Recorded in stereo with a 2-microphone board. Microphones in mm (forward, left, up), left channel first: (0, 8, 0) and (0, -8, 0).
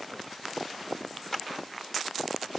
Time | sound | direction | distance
1.3 | a clap | 20° left (ahead or behind) | 0.9 m